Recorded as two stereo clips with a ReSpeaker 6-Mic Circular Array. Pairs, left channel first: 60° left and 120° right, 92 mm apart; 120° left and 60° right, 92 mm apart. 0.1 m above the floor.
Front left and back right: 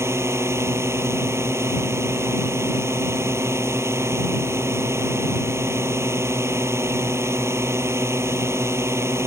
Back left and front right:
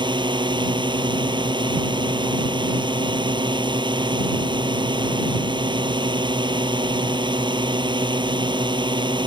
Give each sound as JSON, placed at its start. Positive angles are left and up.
{"t": 0.0, "sound": "a drone", "azimuth_deg": -65}